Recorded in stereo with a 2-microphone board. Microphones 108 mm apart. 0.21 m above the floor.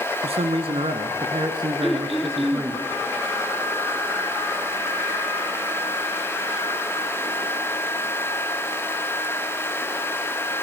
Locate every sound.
0.2 s a man speaking: 65° right (ahead or behind), 2.5 m; by 2.8 s 20° right (ahead or behind), 2.5 m
1.8 s throat clearing: centre (ahead or behind), 3 m